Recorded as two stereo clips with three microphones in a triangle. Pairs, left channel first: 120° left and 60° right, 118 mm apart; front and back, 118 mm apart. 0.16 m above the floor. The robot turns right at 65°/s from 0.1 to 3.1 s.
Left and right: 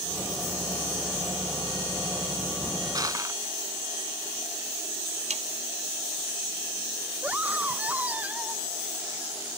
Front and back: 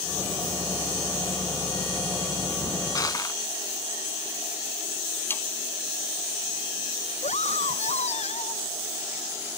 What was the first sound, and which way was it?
Crushing, 35° right.